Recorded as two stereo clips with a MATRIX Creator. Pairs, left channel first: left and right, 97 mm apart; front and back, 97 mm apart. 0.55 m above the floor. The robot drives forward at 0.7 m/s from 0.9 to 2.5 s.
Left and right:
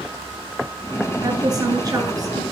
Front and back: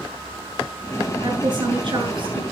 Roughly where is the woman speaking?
Behind right.